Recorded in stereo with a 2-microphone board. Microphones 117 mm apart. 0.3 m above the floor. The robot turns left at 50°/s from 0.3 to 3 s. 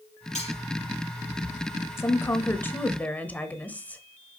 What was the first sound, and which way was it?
Cutlery clinking, 80° left.